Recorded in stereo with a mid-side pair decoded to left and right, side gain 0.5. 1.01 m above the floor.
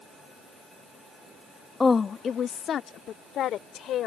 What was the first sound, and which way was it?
A woman speaking, 25° left.